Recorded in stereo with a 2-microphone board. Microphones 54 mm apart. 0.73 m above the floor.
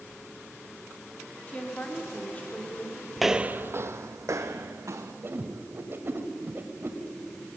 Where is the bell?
No bell in this recording.